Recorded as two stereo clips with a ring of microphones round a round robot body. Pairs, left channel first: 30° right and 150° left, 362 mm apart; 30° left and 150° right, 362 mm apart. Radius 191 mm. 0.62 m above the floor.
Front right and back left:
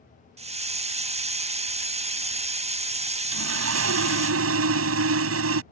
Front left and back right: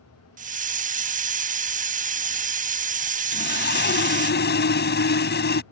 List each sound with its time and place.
0.4 s a hiss: 170° right
3.3 s sawing: 95° left